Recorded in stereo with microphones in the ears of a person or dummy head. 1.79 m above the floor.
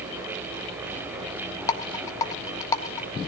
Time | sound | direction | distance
1.7 | a rattle | 20° left (ahead or behind) | 1.4 m